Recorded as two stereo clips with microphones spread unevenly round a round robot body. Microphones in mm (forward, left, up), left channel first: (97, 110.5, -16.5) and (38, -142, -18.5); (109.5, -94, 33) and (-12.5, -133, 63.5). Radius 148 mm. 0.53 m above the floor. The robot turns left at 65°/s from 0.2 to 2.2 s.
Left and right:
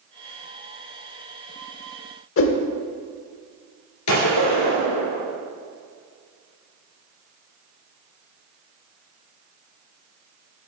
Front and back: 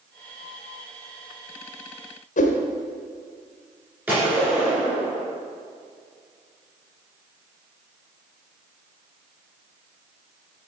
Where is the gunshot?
115° left, 3 m.